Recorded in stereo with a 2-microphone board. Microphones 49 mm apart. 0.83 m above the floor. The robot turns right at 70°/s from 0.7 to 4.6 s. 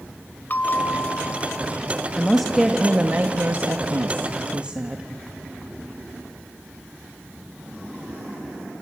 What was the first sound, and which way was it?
A bell, 45° left.